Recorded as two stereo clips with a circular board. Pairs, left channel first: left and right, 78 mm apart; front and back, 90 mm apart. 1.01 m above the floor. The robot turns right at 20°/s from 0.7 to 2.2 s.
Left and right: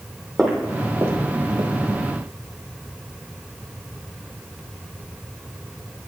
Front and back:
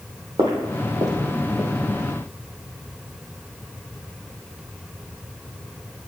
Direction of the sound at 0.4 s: 175° left.